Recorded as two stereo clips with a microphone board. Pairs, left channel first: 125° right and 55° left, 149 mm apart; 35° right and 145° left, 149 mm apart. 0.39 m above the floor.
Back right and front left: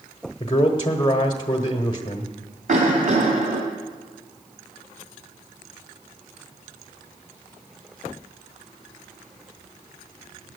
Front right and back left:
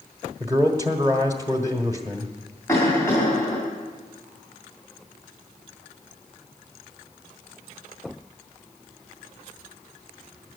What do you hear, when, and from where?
0.4 s a man speaking: 165° right, 1.1 m
2.7 s a cough: 35° left, 2.5 m